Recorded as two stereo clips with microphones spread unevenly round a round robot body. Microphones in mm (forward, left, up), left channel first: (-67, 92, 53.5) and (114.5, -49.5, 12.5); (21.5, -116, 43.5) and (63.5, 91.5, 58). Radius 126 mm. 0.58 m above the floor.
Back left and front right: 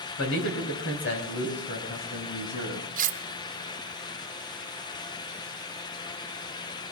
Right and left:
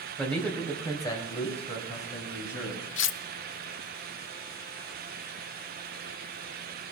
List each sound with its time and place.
0.2 s a man speaking: 170° left, 4 m; by 2.9 s 150° right, 5 m
3.0 s cutlery clinking: 90° right, 0.8 m